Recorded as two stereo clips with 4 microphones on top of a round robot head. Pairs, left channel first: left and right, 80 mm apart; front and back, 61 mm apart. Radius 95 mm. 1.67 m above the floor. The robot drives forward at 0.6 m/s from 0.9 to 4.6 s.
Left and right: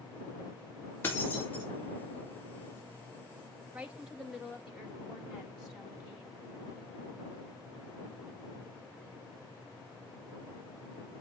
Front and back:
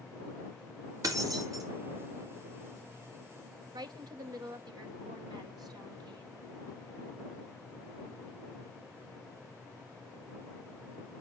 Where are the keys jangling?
160° left, 1.9 m; by 1.6 s 165° left, 2.5 m.